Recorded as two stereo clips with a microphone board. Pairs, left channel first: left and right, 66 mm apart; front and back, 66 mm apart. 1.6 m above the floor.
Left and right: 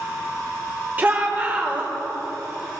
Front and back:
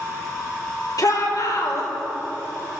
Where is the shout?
25° right, 5.5 m.